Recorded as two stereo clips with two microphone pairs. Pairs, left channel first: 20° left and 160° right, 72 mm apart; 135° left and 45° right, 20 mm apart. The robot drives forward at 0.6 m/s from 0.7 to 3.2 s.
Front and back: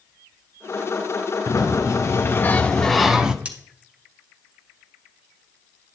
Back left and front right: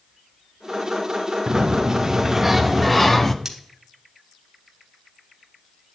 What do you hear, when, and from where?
1.5 s a sliding door: 5° left, 1.0 m; by 3.4 s 145° left, 0.6 m
3.5 s cutlery clinking: 100° right, 1.2 m